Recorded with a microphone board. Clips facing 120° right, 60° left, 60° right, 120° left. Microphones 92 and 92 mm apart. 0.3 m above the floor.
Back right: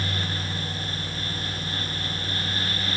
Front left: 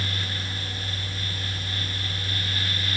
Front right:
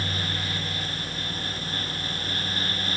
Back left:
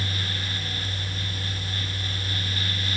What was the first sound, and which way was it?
Only background noise.